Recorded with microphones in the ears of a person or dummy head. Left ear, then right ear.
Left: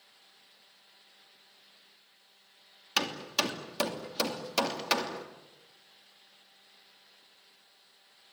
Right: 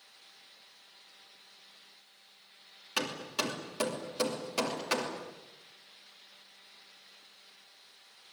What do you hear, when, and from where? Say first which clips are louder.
3.0 s hammering: left 4 dB; 30° left (ahead or behind), 3 m